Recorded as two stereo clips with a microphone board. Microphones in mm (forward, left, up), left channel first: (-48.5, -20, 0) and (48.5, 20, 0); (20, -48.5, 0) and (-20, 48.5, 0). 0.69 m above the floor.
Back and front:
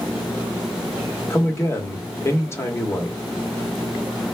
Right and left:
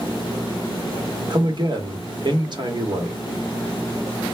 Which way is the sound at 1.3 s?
145° left.